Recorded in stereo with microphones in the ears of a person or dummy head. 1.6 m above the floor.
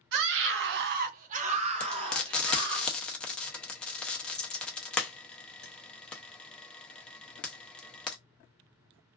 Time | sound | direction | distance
0.1 | a scream | 60° right (ahead or behind) | 0.5 m
1.8 | frying | 10° left (ahead or behind) | 0.5 m